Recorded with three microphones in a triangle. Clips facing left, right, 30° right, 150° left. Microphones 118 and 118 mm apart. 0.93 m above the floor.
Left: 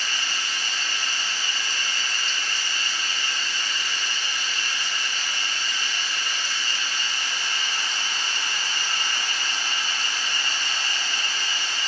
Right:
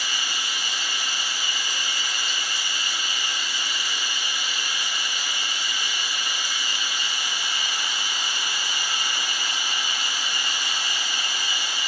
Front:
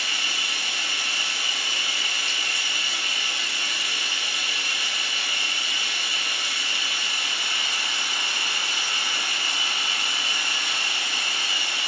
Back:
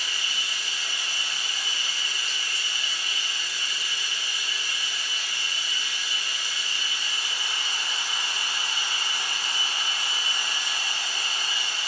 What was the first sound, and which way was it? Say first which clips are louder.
Running water: even, front 3 dB; 10° right.